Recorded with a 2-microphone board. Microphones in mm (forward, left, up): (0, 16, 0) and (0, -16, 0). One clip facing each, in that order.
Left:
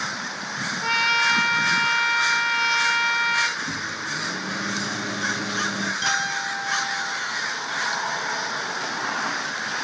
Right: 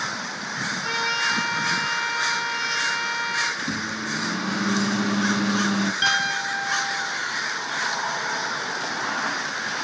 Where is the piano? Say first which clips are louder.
Right 2 dB; 35° right (ahead or behind), 1.3 m.